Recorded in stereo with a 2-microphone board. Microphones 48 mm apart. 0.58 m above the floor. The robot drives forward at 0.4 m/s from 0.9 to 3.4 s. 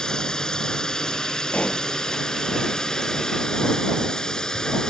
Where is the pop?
25° left (ahead or behind).